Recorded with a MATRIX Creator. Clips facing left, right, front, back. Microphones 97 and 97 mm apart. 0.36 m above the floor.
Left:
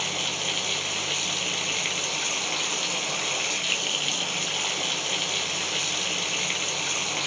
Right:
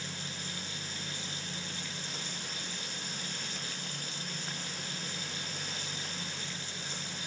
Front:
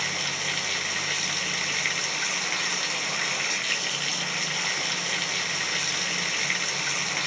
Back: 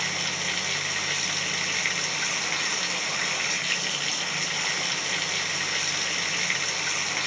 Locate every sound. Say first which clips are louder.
0.0 s running water: left 11 dB, even; 90° left